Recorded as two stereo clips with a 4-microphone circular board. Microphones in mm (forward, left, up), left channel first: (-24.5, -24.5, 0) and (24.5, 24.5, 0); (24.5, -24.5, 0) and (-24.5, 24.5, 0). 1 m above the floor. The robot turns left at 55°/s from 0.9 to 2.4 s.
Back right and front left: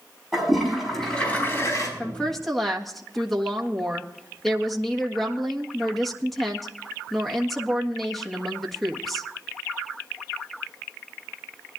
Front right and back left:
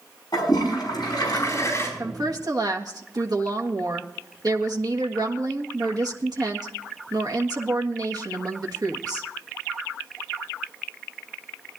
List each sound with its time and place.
0.3 s a toilet flushing: 45° right, 5 m; by 1.9 s 100° right, 5 m
2.0 s a woman speaking: 160° left, 1.6 m; by 9.3 s 135° left, 1.6 m